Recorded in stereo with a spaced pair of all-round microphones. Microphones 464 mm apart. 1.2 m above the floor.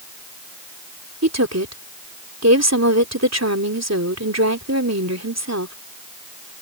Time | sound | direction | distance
1.2 | a woman speaking | 35° right (ahead or behind) | ?